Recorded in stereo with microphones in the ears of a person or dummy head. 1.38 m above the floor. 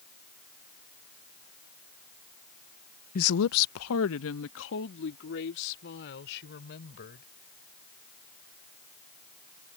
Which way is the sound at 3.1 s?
40° left (ahead or behind).